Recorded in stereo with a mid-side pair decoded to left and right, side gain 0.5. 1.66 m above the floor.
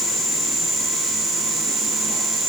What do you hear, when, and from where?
Only background noise.